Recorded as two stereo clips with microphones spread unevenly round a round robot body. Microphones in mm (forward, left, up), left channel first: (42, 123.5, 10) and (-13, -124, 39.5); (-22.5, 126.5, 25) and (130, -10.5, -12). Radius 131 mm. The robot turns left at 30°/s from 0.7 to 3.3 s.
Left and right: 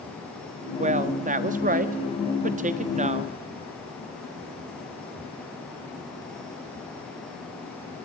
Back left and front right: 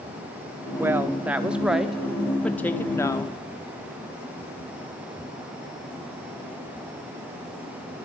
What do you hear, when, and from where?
0.8 s a woman speaking: 70° right, 1.0 m; by 3.3 s 145° right, 1.0 m